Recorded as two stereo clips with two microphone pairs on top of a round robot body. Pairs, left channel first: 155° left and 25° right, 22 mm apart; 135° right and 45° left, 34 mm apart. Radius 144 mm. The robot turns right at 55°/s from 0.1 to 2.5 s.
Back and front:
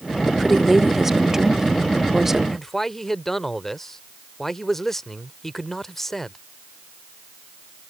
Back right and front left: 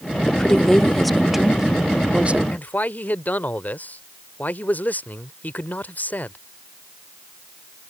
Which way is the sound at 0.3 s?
100° right.